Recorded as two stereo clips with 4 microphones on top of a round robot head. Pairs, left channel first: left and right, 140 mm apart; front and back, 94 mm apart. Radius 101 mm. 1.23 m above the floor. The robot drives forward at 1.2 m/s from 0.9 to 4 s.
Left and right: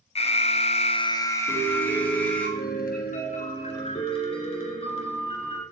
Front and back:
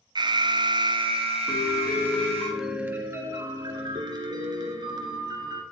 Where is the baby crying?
No baby crying in this recording.